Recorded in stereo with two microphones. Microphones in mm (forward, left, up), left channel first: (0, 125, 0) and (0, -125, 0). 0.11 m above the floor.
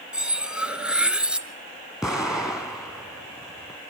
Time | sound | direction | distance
0.1 | cutlery clinking | 5° right (ahead or behind) | 0.8 m
2.0 | an explosion | centre (ahead or behind) | 1.6 m